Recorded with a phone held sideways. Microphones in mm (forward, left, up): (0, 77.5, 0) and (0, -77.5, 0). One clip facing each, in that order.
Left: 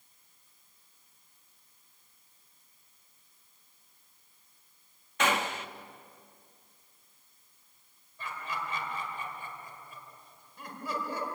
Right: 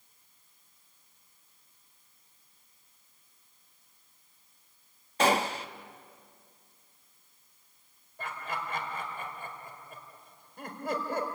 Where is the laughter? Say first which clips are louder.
Right 1 dB; 55° right (ahead or behind), 4.5 m.